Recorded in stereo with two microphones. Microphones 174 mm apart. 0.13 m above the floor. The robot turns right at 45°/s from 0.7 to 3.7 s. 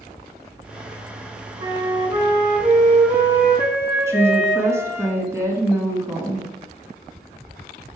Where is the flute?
20° right (ahead or behind), 1.6 m; by 5.1 s 15° right (ahead or behind), 1.6 m.